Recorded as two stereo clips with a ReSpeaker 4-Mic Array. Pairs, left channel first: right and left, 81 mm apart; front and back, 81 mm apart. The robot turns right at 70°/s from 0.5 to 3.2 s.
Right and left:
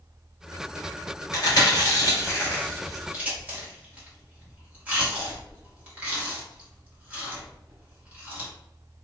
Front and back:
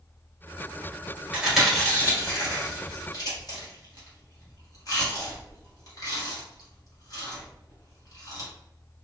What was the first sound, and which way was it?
Chewing, 110° right.